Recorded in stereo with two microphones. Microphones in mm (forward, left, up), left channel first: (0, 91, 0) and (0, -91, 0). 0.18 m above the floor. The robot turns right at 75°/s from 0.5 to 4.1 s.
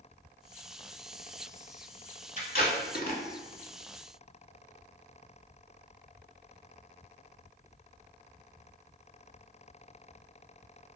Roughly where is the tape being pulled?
Left.